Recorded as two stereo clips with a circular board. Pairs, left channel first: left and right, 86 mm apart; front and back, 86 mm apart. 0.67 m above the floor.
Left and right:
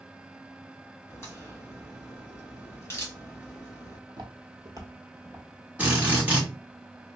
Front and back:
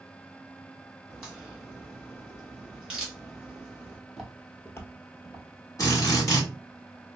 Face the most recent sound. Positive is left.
turn(degrees=-25)